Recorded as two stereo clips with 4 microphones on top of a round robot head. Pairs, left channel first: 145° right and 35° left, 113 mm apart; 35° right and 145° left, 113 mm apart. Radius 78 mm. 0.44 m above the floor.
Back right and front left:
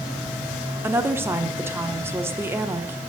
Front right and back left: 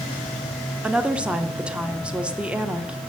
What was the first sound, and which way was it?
A woman speaking, 80° left.